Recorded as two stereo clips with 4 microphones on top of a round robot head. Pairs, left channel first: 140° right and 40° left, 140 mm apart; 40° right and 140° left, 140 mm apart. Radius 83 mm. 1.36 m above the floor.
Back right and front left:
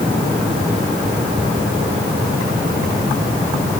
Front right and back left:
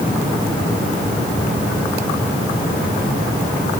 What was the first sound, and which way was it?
Only background noise.